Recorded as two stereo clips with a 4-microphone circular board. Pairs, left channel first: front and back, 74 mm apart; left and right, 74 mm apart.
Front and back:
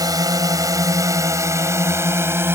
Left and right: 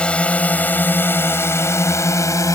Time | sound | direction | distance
0.0 | a drone | 165° left | ?